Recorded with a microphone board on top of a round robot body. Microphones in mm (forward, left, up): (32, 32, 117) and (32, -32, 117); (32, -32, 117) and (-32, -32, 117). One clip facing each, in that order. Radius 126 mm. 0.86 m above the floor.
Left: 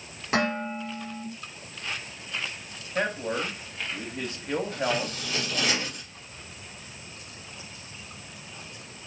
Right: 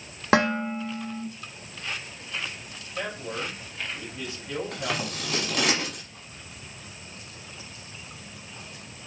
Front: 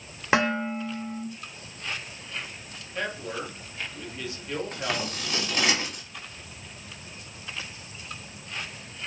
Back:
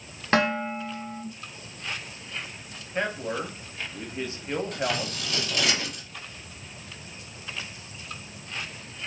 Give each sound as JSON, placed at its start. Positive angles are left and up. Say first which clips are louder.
{"t": 0.3, "sound": "dishes clattering", "louder": "right 4 dB, even", "azimuth_deg": -80, "distance_m": 1.3}
{"t": 3.0, "sound": "a man speaking", "louder": "left 5 dB, back 3 dB", "azimuth_deg": 120, "distance_m": 1.0}
{"t": 4.7, "sound": "scissors", "louder": "left 3 dB, back 2 dB", "azimuth_deg": -65, "distance_m": 1.4}